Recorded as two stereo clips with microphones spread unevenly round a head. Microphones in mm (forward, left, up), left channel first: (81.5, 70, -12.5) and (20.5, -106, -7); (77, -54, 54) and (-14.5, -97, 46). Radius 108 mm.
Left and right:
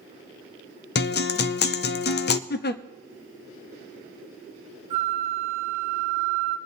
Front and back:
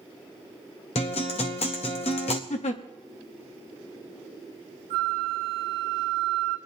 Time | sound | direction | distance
0.9 | a guitar | 55° left | 0.5 m
2.5 | a giggle | 35° left | 0.6 m
4.9 | a flute | 175° right | 1.6 m